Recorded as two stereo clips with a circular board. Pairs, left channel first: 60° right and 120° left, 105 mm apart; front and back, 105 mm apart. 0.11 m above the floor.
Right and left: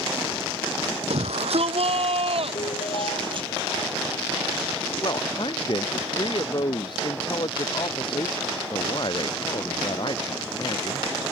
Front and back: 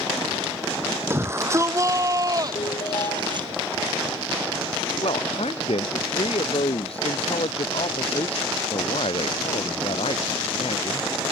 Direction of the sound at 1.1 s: 115° left.